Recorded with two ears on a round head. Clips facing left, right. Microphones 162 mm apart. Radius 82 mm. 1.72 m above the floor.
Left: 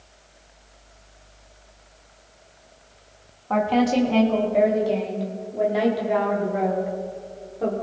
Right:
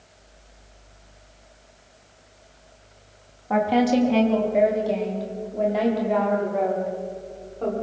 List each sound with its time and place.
3.5 s a woman speaking: 10° right (ahead or behind), 3.5 m; by 7.7 s 10° left (ahead or behind), 7 m